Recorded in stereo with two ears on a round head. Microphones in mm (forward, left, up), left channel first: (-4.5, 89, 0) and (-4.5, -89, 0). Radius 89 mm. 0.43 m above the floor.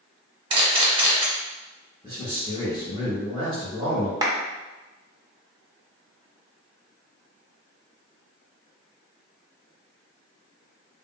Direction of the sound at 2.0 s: 30° right (ahead or behind).